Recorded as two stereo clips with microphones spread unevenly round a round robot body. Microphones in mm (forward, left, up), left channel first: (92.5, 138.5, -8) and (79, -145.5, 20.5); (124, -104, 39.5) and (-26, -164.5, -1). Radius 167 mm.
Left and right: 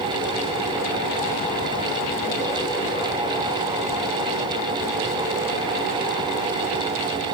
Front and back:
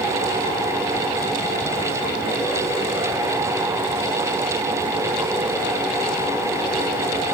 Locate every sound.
Only background noise.